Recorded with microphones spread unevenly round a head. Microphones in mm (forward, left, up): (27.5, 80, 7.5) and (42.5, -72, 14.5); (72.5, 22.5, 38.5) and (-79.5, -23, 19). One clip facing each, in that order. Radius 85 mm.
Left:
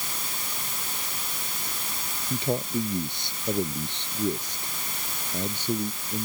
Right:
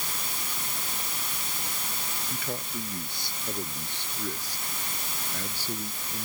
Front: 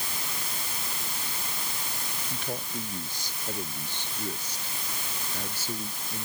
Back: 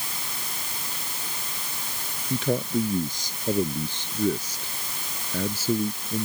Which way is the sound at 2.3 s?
170° left.